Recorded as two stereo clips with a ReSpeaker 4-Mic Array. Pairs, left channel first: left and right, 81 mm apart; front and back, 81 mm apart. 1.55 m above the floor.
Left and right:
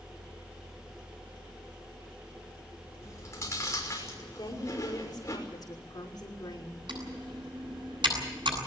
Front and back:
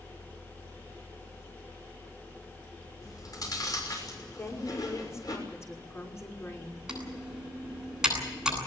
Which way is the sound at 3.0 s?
40° left.